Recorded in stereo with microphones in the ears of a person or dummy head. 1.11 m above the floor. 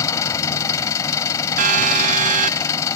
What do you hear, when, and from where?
0.0 s an engine running: 15° left (ahead or behind)
1.6 s a siren: 45° right (ahead or behind)